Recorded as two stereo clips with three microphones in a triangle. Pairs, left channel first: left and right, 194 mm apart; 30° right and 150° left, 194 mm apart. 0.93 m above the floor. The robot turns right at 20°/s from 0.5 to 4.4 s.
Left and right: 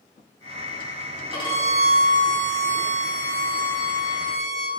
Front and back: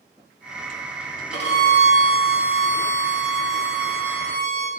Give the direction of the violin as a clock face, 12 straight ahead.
11 o'clock.